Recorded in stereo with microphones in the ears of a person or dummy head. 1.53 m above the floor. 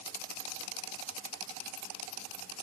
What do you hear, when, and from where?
Only background noise.